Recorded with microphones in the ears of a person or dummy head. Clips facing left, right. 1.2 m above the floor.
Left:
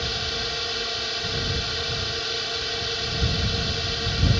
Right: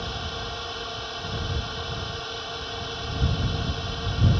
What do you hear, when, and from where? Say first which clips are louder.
0.0 s a drone: left 2 dB; 30° left (ahead or behind)